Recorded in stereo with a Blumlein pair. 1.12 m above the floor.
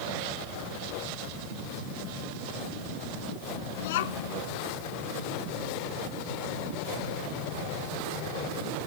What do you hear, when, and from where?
3.8 s a child speaking: 55° left